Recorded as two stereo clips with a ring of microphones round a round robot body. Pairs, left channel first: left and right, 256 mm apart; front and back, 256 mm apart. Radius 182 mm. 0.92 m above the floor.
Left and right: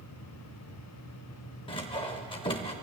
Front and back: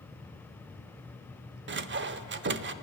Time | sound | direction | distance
1.7 | sawing | 160° left | 0.7 m